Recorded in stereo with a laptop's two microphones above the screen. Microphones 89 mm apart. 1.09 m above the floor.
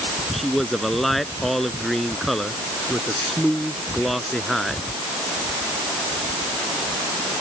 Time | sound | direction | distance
0.3 | a man speaking | centre (ahead or behind) | ?